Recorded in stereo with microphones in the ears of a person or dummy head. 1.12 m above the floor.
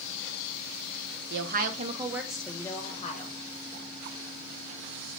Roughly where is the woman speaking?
Right.